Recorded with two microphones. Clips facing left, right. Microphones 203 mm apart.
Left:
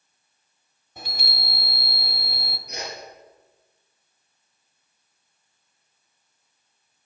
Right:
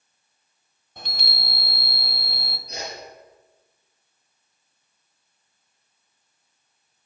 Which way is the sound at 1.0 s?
10° left (ahead or behind).